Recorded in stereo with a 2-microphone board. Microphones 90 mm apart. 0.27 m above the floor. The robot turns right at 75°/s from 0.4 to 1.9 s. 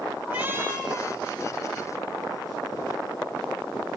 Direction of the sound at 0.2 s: 165° right.